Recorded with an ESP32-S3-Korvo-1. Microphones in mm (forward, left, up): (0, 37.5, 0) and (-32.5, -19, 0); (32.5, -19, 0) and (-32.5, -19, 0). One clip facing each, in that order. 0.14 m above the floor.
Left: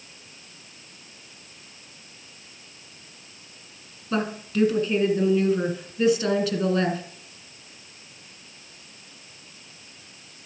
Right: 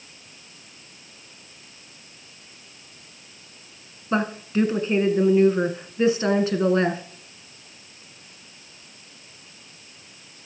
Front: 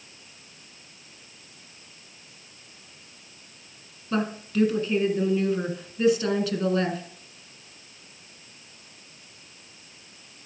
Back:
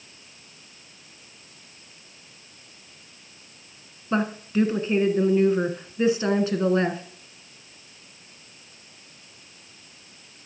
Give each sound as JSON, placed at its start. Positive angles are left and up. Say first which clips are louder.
{"t": 4.1, "sound": "a woman speaking", "louder": "right 3 dB, back 2 dB", "azimuth_deg": -145, "distance_m": 1.3}